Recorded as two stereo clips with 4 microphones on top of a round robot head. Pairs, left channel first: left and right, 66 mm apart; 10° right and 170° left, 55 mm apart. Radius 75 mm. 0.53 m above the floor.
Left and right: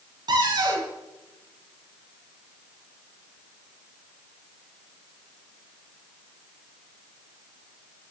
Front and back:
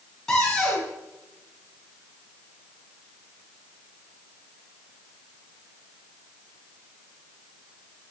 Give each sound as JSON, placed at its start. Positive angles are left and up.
{"t": 0.3, "sound": "a cupboard door", "azimuth_deg": -90, "distance_m": 4.5}